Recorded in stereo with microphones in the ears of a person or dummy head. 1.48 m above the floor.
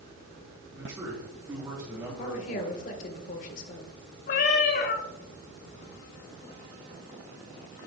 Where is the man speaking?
20° right (ahead or behind), 4 m.